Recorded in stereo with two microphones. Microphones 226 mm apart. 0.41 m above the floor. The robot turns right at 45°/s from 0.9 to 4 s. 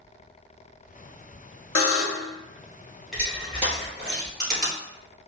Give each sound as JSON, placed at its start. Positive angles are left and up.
{"t": 1.8, "sound": "a buzzer", "side_deg": 70, "distance_m": 0.6}
{"t": 3.1, "sound": "crushing", "side_deg": 0, "distance_m": 1.8}